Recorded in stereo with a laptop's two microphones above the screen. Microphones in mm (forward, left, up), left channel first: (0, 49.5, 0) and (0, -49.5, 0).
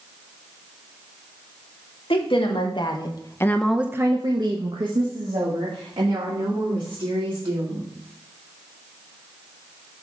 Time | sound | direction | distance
2.1 | a woman speaking | 60° left (ahead or behind) | 1.6 m